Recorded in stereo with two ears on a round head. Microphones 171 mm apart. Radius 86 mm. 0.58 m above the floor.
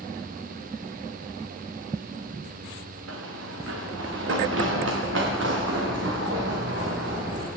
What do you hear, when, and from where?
3.1 s running footsteps: 75° right (ahead or behind), 3 m; by 7.5 s 60° right (ahead or behind), 5 m